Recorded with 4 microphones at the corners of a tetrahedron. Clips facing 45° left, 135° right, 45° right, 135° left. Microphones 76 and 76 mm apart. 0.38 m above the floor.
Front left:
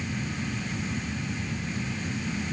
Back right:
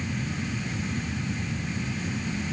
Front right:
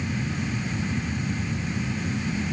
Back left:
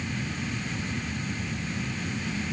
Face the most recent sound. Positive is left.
No sound to turn to.